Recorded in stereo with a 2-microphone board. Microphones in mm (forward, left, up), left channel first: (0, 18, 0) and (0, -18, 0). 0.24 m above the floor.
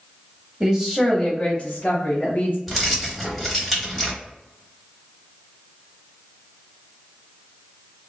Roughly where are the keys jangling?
Centre.